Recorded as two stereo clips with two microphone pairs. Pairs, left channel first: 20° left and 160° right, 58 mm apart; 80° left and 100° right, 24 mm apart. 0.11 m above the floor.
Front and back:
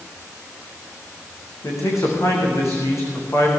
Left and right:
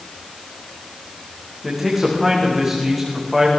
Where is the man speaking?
15° right, 8 m.